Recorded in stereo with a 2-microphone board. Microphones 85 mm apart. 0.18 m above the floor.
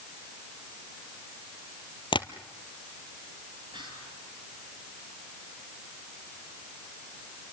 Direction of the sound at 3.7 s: 65° right (ahead or behind).